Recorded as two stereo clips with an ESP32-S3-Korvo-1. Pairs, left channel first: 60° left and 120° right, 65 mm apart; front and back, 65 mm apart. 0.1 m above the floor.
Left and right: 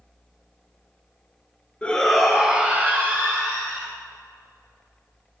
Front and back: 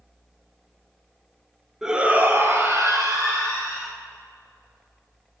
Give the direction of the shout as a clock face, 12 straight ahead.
8 o'clock.